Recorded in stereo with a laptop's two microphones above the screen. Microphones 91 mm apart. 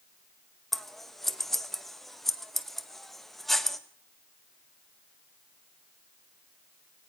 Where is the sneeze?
No sneeze in this recording.